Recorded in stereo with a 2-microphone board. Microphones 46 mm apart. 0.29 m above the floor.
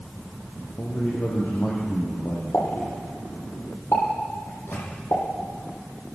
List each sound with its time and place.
0.8 s a man speaking: 55° left (ahead or behind), 8 m
2.5 s a pop: 70° left (ahead or behind), 9 m
4.5 s a microwave: 60° left (ahead or behind), 9 m